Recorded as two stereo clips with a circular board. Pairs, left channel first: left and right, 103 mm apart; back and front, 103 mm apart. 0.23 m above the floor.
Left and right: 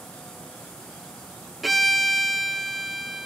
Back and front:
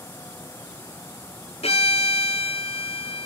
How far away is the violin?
About 0.6 m.